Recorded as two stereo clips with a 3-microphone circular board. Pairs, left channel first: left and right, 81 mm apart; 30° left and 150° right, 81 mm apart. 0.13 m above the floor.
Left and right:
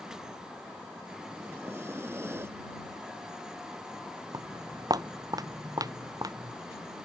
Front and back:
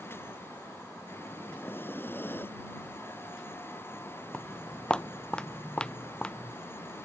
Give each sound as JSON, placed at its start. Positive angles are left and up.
{"t": 1.4, "sound": "breathing", "azimuth_deg": -30}
{"t": 4.3, "sound": "footsteps", "azimuth_deg": -50}